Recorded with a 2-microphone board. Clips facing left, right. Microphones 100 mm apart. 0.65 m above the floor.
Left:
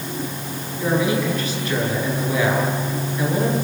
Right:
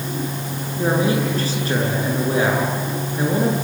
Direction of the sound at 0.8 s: 35° right (ahead or behind).